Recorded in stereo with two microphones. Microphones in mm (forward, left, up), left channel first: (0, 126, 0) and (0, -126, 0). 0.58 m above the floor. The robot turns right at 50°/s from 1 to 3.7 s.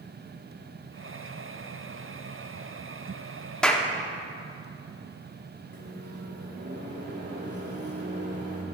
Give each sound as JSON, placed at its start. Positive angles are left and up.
{"t": 3.6, "sound": "a clap", "side_deg": 5, "distance_m": 1.1}
{"t": 5.7, "sound": "a microwave", "side_deg": -65, "distance_m": 2.5}